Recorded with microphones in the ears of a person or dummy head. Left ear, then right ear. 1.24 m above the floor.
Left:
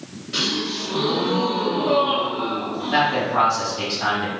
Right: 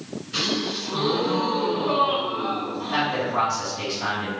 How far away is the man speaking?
About 1.5 m.